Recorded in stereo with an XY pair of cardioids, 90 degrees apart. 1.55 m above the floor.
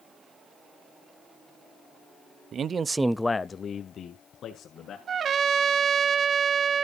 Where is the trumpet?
60° right, 0.8 m.